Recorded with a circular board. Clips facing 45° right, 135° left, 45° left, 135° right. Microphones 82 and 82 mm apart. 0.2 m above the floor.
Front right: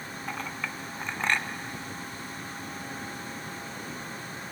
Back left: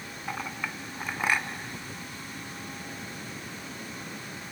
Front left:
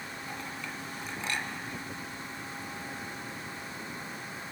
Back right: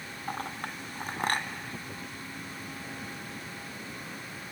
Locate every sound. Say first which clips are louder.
0.3 s a clink: back left 1 dB, back right 7 dB; 145° right, 1.4 m